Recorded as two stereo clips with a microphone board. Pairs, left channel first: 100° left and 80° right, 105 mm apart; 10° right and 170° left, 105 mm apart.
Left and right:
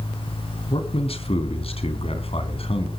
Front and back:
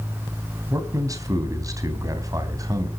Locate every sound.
0.7 s a man speaking: 115° left, 3 m